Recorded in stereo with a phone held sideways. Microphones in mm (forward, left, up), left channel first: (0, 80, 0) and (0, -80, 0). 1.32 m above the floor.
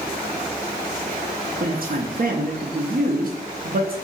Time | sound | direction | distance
1.6 | a man speaking | 60° right (ahead or behind) | 0.6 m